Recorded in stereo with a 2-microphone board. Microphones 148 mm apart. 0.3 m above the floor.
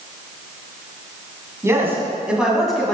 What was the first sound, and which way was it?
A man speaking, 20° right (ahead or behind).